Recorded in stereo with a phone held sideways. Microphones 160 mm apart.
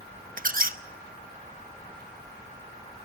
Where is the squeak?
55° right (ahead or behind), 0.8 m.